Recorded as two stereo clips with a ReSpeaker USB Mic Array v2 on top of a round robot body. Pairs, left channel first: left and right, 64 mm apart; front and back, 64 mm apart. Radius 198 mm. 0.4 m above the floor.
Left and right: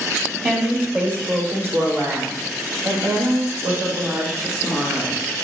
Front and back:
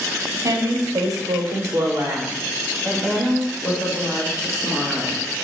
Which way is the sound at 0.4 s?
165° right.